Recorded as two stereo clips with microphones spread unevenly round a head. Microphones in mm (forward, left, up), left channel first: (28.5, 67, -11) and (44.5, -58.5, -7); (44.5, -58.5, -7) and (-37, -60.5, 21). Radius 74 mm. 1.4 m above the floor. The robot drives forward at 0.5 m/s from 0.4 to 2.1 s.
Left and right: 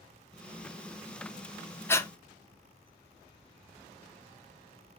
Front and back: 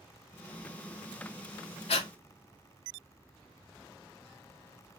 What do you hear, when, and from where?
1.9 s breathing: 25° left, 0.6 m; by 2.1 s 35° left, 0.5 m